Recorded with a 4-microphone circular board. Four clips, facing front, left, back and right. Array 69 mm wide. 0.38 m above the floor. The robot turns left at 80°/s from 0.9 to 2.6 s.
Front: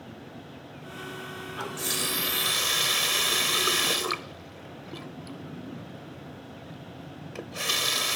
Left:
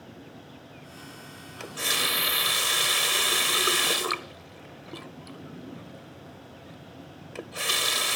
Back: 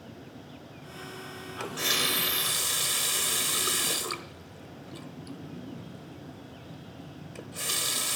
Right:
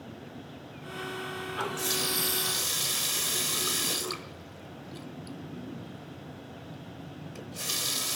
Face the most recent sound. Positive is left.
turn(degrees=65)